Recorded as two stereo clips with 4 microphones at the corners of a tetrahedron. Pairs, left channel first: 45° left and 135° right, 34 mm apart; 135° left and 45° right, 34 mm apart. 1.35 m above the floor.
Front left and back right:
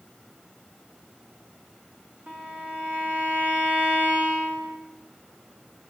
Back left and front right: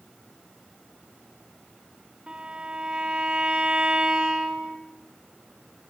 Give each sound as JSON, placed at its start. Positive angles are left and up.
{"t": 2.3, "sound": "a violin", "azimuth_deg": -100, "distance_m": 1.8}